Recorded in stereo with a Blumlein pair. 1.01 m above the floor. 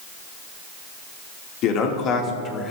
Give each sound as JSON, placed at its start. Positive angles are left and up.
{"t": 1.6, "sound": "a man speaking", "azimuth_deg": 35, "distance_m": 2.5}